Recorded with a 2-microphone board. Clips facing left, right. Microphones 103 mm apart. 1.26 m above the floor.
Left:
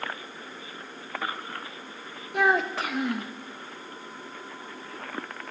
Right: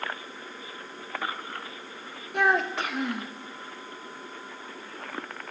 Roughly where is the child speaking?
Centre.